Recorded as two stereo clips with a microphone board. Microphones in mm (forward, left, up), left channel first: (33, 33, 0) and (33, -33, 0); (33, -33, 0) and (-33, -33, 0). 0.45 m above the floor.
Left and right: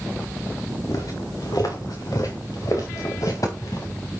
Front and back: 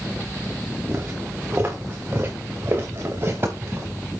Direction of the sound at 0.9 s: 125° left.